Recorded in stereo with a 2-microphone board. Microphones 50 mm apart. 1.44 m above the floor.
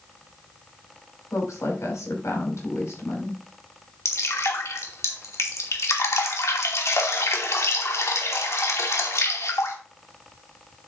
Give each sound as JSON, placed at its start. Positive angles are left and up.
{"t": 1.3, "sound": "a woman speaking", "side_deg": 85, "distance_m": 6.0}
{"t": 4.0, "sound": "dripping", "side_deg": 75, "distance_m": 2.5}